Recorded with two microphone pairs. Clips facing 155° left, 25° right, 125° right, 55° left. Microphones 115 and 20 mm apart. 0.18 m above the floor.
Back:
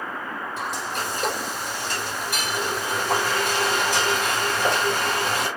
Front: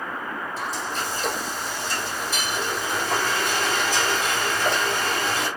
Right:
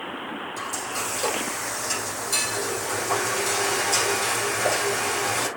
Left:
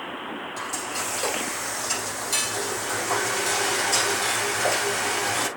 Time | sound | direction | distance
0.6 | frying | 130° left | 8 m